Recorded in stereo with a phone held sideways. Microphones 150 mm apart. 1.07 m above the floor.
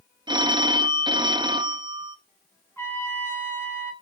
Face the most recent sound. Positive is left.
turn(degrees=15)  # may be behind; listen again after turning